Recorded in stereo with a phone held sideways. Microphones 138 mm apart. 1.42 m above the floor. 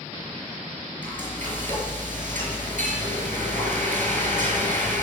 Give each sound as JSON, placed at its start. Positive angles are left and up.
{"t": 1.0, "sound": "frying", "side_deg": -65, "distance_m": 5.5}